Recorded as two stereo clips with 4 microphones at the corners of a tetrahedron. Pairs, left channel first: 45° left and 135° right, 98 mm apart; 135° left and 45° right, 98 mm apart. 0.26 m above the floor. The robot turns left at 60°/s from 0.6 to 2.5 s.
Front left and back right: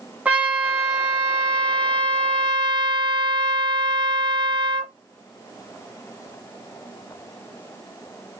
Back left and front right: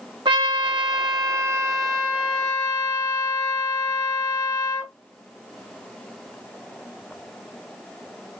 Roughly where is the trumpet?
Ahead right.